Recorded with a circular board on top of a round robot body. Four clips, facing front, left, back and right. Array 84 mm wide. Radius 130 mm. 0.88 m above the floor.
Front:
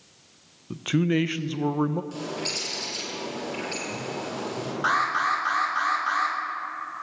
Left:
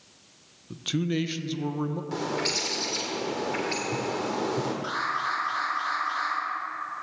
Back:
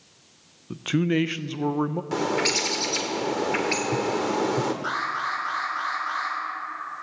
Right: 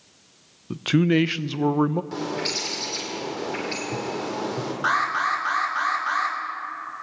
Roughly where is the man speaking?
Right.